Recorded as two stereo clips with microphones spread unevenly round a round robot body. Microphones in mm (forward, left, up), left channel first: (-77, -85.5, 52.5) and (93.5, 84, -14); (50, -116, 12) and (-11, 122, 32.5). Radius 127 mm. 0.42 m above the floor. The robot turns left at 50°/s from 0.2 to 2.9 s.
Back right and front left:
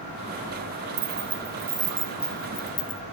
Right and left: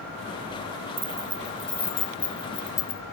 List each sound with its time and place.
1.0 s keys jangling: 40° left, 0.5 m; by 3.0 s 55° right, 0.5 m